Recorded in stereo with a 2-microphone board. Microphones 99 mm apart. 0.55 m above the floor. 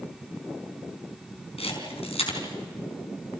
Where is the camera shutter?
80° left, 4.5 m.